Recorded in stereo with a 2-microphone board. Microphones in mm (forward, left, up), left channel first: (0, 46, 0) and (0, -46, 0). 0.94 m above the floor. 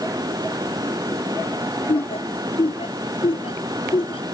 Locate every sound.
1.9 s laughter: 90° left; by 4.2 s 85° left